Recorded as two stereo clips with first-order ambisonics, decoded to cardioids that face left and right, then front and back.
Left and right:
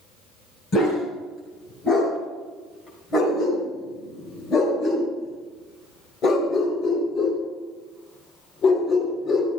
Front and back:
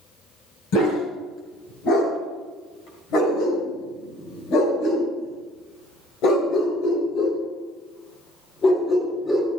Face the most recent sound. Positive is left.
turn(degrees=75)